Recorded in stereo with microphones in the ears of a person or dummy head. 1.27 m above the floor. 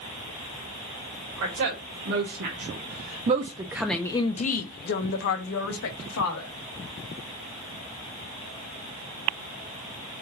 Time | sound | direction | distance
1.4 | a woman speaking | 70° right (ahead or behind) | 1.5 m